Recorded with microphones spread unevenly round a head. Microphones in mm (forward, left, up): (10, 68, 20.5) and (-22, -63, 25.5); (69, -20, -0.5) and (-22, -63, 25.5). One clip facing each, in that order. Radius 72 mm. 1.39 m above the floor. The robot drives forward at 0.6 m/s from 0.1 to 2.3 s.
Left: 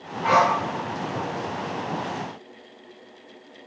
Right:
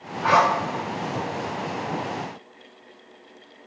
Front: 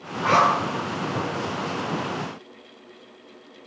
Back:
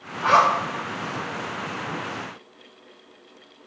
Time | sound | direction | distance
0.2 | a zipper | 90° right | 3 m